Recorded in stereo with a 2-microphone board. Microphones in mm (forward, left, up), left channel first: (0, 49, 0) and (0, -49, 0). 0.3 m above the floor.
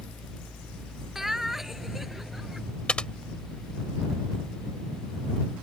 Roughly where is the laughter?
Centre.